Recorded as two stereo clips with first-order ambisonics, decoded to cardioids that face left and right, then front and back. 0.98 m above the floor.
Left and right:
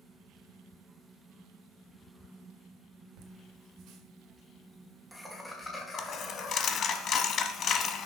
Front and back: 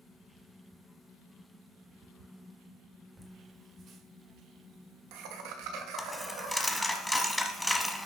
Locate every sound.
3.2 s laughter: 100° right, 1.5 m; by 7.0 s 155° left, 2.5 m
6.0 s a dropped coin: 85° left, 0.9 m